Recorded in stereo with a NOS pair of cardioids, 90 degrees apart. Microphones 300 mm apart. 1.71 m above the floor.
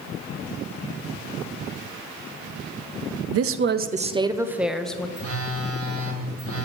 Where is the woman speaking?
55° right, 0.6 m; by 5.1 s 5° left, 1.2 m.